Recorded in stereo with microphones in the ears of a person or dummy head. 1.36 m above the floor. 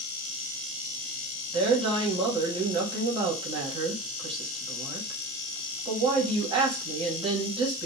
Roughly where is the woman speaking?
Right.